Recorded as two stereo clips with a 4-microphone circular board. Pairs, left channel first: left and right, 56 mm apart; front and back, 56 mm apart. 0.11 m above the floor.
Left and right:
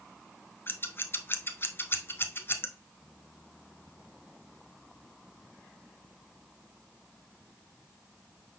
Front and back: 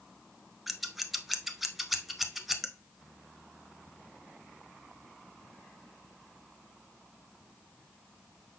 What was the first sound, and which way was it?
Scissors, 95° left.